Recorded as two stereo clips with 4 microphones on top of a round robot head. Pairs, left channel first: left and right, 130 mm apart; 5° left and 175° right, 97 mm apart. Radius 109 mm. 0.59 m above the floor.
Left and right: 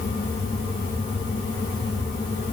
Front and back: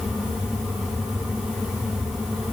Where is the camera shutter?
No camera shutter in this recording.